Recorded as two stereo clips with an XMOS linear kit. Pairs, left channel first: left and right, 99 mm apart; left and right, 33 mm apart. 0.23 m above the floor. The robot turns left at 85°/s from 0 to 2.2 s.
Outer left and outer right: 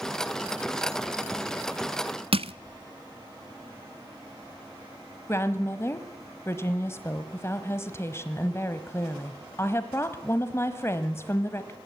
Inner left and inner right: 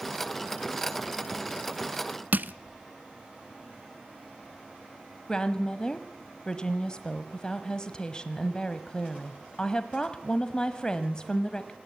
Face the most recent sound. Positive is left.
turn(degrees=25)  # may be behind; listen again after turning